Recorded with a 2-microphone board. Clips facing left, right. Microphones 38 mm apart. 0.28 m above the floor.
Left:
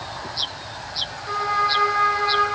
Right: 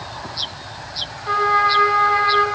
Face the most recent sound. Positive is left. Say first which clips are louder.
# right 6 dB
turn(degrees=-30)  # may be behind; listen again after turning